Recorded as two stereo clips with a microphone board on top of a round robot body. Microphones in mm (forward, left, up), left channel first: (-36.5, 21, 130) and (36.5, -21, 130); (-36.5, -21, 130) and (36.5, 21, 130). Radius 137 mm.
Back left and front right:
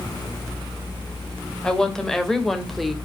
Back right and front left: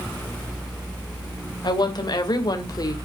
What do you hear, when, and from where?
1.6 s a woman speaking: 130° right, 3 m; by 3.0 s 120° right, 2.5 m